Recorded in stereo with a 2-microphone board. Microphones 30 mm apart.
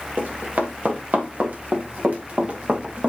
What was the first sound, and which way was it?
Running footsteps, 75° right (ahead or behind).